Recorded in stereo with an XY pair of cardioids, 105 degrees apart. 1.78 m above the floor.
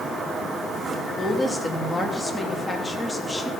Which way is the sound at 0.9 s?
5° left.